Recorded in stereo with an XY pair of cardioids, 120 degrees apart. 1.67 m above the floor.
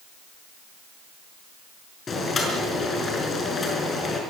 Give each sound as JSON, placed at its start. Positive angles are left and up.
{"t": 2.1, "sound": "boiling", "azimuth_deg": 35, "distance_m": 5.5}